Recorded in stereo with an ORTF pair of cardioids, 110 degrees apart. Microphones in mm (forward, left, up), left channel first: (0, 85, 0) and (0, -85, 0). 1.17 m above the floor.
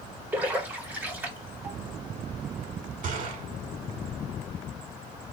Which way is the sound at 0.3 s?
10° right.